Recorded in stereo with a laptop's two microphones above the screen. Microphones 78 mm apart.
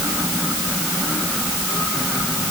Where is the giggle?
No giggle in this recording.